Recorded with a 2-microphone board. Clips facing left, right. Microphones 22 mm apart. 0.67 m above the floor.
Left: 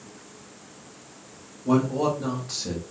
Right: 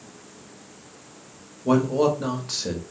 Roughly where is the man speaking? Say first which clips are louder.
Right 3 dB; right.